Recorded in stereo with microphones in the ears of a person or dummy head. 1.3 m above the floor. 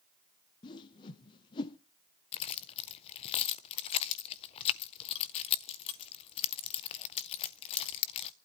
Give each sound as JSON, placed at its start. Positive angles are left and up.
{"t": 0.6, "sound": "a whoosh", "side_deg": 25, "distance_m": 0.6}
{"t": 2.3, "sound": "keys jangling", "side_deg": 30, "distance_m": 0.5}